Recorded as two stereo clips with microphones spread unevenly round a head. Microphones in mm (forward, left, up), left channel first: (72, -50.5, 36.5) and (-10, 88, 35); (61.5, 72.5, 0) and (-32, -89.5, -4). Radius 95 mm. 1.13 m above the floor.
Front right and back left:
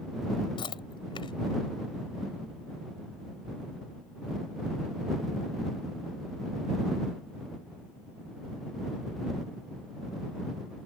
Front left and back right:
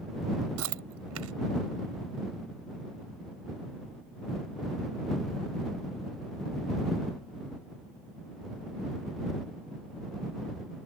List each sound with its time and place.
0.6 s chewing: 125° right